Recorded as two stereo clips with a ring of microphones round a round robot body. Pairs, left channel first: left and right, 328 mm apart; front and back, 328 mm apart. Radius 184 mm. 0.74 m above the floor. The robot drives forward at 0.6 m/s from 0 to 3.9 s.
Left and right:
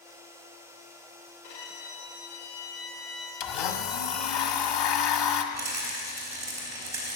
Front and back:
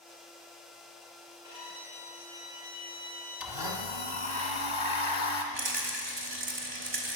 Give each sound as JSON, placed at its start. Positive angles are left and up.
{"t": 1.4, "sound": "a violin", "azimuth_deg": 100, "distance_m": 6.5}
{"t": 3.4, "sound": "a blender", "azimuth_deg": 95, "distance_m": 1.4}
{"t": 5.5, "sound": "a rattle", "azimuth_deg": -170, "distance_m": 3.0}